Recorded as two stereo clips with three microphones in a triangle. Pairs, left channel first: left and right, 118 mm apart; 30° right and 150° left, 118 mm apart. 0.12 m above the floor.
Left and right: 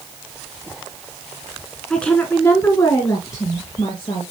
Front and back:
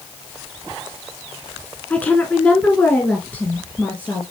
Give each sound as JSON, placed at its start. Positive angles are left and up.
{"t": 1.9, "sound": "a woman speaking", "azimuth_deg": 20, "distance_m": 1.0}